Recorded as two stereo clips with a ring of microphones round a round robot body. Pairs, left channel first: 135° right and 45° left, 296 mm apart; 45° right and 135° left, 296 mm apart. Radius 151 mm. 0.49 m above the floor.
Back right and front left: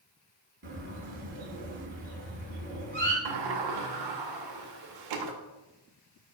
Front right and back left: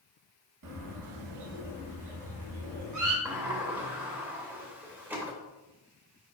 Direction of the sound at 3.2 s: 50° left.